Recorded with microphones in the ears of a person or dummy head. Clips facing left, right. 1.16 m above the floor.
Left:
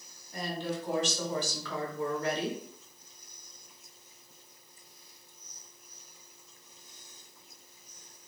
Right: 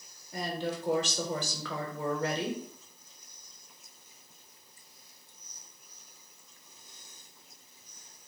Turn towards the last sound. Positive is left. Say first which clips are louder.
# right 1 dB
turn(degrees=-65)  # may be behind; listen again after turning